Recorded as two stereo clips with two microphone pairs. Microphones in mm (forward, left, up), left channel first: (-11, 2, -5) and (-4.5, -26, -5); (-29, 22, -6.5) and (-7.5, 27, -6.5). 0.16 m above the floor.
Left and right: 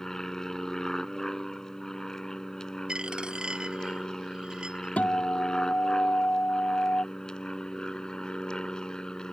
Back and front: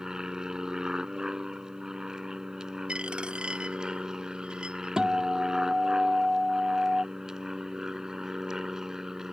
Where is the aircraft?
40° left; by 9.3 s 60° left.